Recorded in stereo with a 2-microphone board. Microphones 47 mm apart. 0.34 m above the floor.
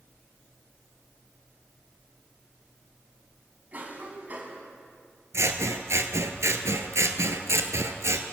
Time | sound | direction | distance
3.7 | a cough | 35° right (ahead or behind) | 3 m
5.3 | scissors | 80° right | 1.1 m